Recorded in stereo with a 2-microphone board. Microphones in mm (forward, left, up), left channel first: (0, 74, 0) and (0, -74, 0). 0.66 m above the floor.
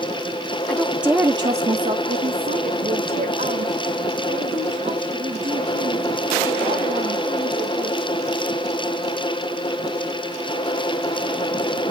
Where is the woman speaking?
10° left (ahead or behind), 1.1 m; by 8.0 s 60° right (ahead or behind), 8 m.